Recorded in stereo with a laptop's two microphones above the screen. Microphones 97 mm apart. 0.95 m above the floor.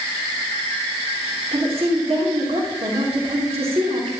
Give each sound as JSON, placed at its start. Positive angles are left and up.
{"t": 1.5, "sound": "a woman speaking", "side_deg": -75, "distance_m": 3.0}